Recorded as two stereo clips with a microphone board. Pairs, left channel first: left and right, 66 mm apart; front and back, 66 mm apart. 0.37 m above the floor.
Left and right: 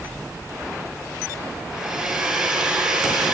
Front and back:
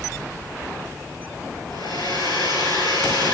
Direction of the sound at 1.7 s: 5° right.